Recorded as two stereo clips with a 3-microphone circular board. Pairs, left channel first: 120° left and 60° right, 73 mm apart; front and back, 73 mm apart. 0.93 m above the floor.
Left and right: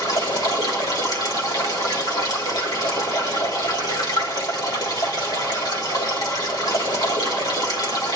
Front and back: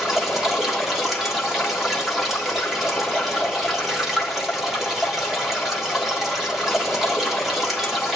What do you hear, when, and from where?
0.0 s running water: 90° left, 1.9 m